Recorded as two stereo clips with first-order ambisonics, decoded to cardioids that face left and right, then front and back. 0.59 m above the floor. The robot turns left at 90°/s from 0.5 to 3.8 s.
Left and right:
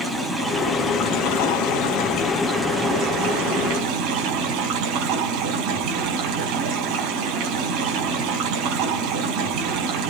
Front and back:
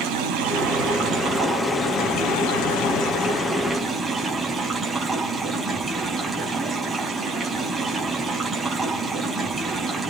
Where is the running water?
170° right, 5.5 m; by 10.1 s 110° right, 5.5 m.